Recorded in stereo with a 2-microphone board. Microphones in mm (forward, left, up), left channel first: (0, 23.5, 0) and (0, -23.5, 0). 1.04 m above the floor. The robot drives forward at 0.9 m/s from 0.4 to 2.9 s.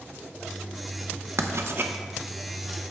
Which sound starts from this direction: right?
Writing, at 1.4 s.